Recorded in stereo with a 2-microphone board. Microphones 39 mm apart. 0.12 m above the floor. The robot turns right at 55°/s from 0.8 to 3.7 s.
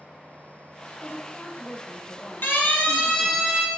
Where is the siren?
60° left (ahead or behind), 4.5 m; by 3.7 s 20° right (ahead or behind), 4.5 m.